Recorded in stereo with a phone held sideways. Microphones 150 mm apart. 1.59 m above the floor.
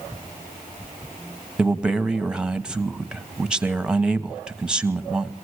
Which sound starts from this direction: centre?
A man speaking, at 1.6 s.